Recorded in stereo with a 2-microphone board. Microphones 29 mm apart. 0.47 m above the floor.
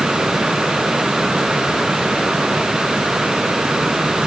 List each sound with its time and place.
Only background noise.